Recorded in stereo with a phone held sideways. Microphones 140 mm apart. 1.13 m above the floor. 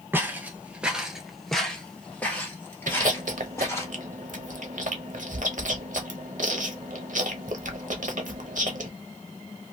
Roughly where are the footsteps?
Centre.